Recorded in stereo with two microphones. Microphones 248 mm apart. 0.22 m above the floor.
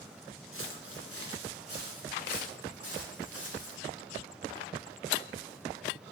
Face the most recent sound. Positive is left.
turn(degrees=-85)